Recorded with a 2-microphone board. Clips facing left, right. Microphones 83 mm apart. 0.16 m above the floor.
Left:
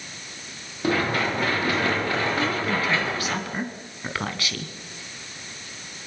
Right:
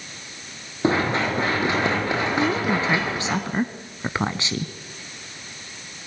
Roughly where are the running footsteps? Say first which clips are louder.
Right 2 dB; right.